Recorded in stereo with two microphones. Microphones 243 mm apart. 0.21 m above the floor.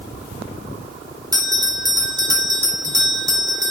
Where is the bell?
15° right (ahead or behind), 1.5 m.